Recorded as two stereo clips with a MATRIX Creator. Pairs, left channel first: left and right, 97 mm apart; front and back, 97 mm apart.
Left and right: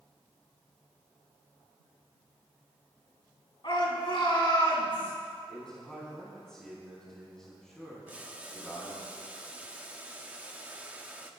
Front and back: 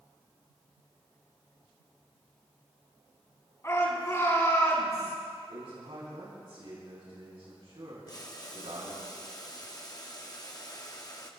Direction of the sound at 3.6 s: 60° left.